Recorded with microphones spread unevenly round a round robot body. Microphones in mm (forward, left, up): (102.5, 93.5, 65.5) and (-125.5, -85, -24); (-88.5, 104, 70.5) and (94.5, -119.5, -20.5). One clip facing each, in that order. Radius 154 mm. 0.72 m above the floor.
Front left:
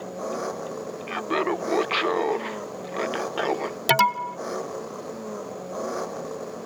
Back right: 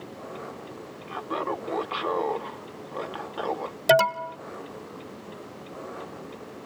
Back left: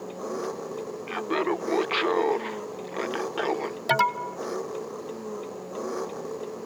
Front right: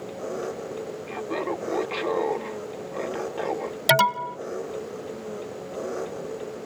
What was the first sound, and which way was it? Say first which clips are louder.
An engine running: front left 8 dB, front right 1 dB; 55° left.